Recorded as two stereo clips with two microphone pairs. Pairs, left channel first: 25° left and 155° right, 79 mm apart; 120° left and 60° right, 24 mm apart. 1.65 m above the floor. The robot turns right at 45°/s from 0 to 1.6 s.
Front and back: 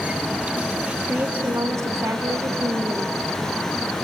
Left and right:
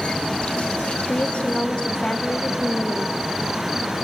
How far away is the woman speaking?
About 1.3 m.